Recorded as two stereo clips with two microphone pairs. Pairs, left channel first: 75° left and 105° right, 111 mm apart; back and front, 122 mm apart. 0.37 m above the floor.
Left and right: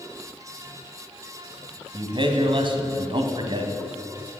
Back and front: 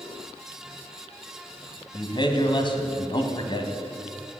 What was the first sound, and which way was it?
A man speaking, 140° right.